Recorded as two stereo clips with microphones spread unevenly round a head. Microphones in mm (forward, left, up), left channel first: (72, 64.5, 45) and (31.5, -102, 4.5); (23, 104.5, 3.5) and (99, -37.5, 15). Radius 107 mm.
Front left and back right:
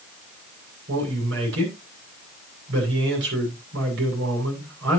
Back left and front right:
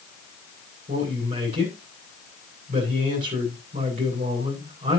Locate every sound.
0.9 s a man speaking: 125° right, 7.5 m